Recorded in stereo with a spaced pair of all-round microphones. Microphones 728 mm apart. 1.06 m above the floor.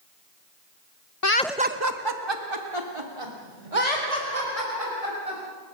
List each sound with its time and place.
1.2 s laughter: 25° left (ahead or behind), 0.8 m; by 5.4 s 50° right (ahead or behind), 6.5 m